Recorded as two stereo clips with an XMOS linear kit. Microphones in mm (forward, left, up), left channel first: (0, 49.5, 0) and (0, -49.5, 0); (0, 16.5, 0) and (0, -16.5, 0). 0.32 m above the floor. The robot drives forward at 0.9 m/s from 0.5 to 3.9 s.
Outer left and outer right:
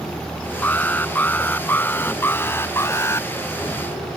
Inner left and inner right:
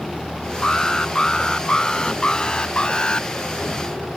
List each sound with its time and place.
0.6 s an alarm: 15° left (ahead or behind); by 3.3 s 30° left (ahead or behind)